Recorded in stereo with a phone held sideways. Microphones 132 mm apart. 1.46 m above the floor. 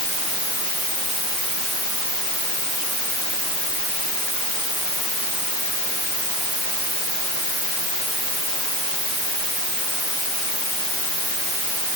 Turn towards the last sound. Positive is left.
No sound to turn to.